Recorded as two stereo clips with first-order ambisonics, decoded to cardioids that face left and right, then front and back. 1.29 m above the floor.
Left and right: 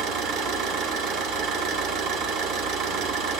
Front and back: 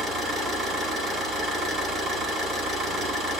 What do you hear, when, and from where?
0.0 s an engine running: 120° right, 1.8 m